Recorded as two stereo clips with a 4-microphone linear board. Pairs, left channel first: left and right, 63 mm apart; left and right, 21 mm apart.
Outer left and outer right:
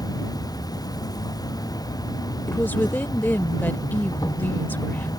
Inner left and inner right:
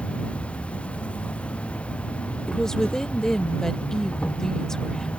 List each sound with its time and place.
0.0 s an insect: 80° left
2.5 s a woman speaking: 30° left (ahead or behind)